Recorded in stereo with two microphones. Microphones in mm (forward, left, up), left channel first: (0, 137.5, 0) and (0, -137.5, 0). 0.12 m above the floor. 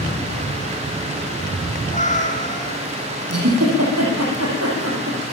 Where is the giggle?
65° right (ahead or behind), 6.5 m.